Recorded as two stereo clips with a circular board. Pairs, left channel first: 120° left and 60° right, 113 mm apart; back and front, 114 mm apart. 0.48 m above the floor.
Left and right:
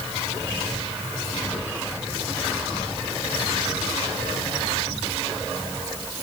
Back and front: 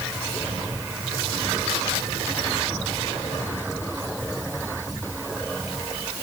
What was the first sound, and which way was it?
Only background noise.